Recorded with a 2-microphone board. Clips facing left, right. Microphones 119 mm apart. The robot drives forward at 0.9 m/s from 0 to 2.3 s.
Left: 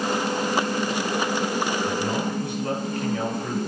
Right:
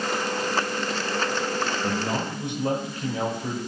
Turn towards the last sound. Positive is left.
turn(degrees=-25)  # may be behind; listen again after turning